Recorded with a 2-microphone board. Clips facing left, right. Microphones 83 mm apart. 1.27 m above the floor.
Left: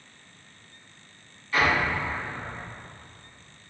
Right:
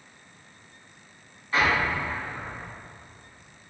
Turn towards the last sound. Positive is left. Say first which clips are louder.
# even
turn(degrees=-30)  # may be behind; listen again after turning